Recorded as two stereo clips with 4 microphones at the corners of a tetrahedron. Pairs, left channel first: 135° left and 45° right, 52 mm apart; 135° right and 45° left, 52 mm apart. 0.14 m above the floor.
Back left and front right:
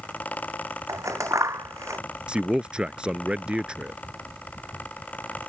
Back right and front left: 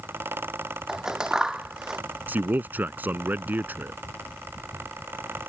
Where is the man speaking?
15° left.